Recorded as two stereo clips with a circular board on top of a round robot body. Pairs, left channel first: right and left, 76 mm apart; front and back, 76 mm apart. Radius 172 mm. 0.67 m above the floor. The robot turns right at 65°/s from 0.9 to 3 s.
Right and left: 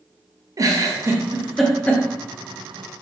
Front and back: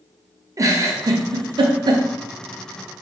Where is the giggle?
135° left, 0.5 m; by 2.0 s 150° right, 0.5 m.